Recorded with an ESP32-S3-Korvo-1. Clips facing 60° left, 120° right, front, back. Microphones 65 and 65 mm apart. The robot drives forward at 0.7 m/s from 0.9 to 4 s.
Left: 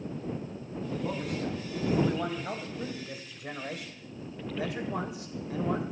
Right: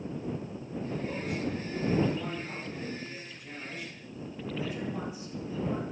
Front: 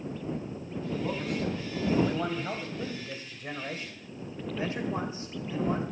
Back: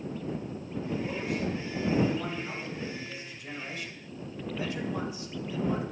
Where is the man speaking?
30° left, 4 m; by 5.8 s 55° left, 2 m.